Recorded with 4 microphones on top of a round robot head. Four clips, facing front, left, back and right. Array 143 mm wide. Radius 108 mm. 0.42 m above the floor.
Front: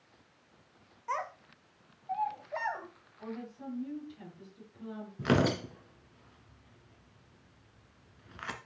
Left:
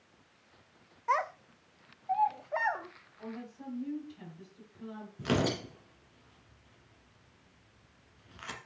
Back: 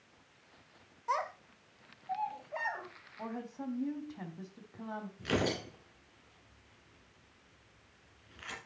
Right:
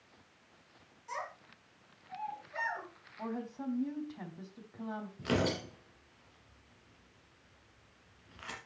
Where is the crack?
I don't hear a crack.